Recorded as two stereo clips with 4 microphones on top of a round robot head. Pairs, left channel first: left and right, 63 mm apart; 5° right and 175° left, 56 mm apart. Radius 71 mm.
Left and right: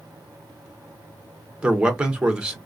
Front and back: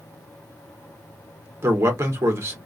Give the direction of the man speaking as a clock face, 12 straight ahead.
5 o'clock.